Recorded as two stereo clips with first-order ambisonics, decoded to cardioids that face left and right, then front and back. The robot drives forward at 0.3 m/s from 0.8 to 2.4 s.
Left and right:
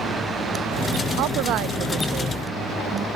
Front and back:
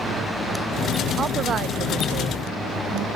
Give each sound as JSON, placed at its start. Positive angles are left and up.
{"t": 1.2, "sound": "a woman speaking", "azimuth_deg": -115}